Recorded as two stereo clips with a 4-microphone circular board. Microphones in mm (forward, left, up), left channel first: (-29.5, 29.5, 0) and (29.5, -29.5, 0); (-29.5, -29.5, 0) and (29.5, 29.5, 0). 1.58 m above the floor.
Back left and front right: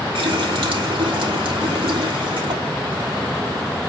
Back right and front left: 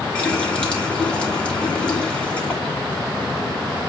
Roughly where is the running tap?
Ahead right.